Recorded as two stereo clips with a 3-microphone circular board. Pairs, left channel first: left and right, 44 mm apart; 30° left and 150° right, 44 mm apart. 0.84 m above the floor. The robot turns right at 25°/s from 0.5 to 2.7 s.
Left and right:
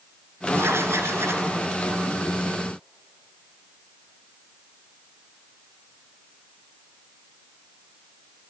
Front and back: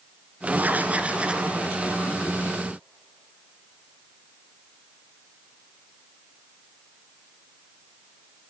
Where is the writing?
100° right, 1.9 m; by 1.5 s 75° right, 1.9 m.